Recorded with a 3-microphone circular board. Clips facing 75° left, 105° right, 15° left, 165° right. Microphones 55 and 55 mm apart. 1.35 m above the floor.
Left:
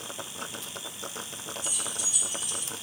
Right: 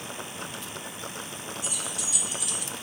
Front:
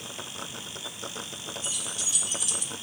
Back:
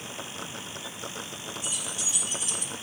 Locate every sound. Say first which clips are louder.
1.6 s keys jangling: right 2 dB, back 1 dB; 90° right, 1.2 m; by 2.7 s 125° right, 0.5 m